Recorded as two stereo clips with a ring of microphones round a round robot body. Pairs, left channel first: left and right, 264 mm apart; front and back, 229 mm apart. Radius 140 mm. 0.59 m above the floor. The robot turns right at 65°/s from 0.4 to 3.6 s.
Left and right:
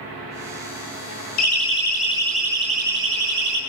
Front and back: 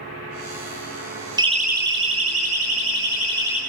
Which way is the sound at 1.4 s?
110° left.